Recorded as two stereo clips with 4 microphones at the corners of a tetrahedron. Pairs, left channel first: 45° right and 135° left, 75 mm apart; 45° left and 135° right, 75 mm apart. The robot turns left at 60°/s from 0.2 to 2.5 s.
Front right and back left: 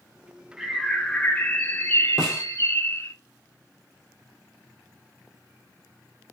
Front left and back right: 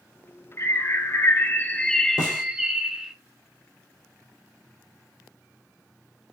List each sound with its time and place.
0.6 s a bird: 55° left, 0.8 m; by 3.1 s 60° right, 0.8 m
2.2 s a snare drum: 45° left, 3.5 m; by 2.4 s 30° left, 3.5 m